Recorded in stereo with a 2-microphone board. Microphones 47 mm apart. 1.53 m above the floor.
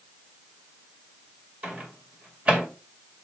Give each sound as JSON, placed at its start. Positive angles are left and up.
{"t": 1.6, "sound": "a microwave", "side_deg": -30, "distance_m": 1.9}